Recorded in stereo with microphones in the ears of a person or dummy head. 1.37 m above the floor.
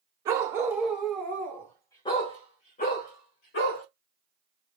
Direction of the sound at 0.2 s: 20° right (ahead or behind).